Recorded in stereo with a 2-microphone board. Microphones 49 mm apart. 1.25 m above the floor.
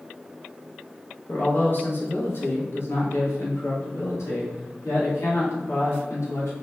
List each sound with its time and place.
1.3 s a man speaking: 35° left (ahead or behind), 2.0 m; by 6.5 s 85° left, 4 m